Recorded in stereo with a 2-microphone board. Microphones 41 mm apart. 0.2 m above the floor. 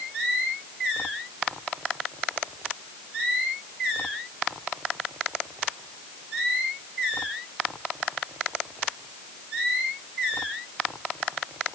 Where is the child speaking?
I don't hear a child speaking.